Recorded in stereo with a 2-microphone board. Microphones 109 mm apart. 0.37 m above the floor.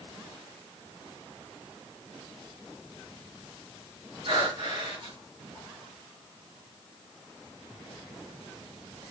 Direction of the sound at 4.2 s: 55° right (ahead or behind).